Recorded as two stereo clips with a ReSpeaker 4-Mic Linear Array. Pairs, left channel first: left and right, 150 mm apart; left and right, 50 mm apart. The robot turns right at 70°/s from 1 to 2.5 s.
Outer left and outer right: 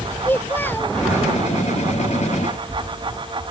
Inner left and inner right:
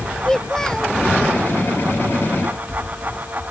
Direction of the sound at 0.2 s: 15° left (ahead or behind).